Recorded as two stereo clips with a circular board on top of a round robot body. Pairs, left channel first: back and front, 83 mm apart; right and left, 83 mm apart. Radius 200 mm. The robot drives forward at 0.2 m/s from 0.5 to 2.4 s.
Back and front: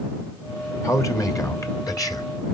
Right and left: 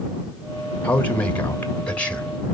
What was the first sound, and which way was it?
A man speaking, 155° right.